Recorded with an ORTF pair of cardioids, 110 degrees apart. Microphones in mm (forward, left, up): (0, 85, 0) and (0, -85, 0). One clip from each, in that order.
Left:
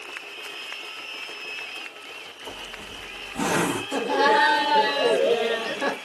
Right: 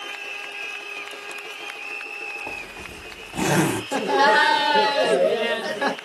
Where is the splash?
I don't hear a splash.